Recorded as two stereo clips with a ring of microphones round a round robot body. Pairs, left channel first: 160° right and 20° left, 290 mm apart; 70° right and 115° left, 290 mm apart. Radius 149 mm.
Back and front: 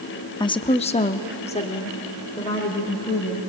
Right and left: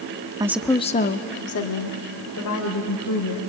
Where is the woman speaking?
155° left, 0.7 m; by 3.4 s 85° right, 2.5 m.